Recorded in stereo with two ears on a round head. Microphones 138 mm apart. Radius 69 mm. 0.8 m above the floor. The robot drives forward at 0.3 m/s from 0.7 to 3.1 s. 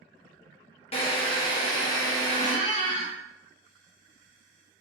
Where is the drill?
40° left (ahead or behind), 0.6 m; by 2.5 s 25° left (ahead or behind), 1.0 m.